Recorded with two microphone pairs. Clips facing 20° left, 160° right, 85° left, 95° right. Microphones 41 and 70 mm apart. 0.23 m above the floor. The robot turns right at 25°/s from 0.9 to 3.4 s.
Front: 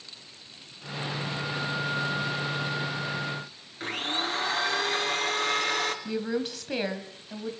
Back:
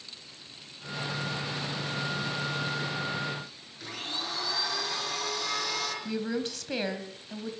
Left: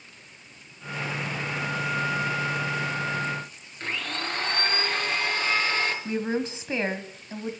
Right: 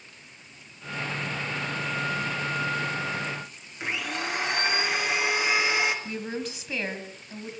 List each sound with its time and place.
3.8 s a blender: 20° right, 3 m
6.0 s a woman speaking: 100° left, 1.8 m